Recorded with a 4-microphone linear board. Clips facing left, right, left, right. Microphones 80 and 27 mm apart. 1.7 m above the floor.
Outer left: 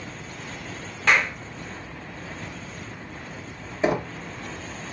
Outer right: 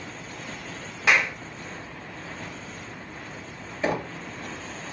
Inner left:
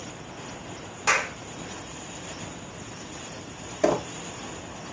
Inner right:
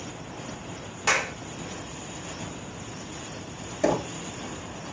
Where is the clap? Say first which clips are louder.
Outer left 1 dB, inner left 1 dB; 5° right (ahead or behind), 2 m.